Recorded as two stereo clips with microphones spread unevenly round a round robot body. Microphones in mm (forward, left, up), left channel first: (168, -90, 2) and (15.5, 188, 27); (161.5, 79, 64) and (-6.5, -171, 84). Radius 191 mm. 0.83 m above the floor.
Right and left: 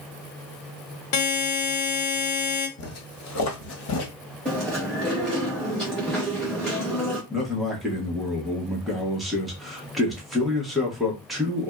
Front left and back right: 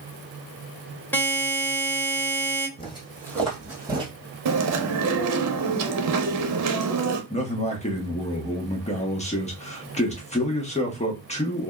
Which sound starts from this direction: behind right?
Chewing, at 4.5 s.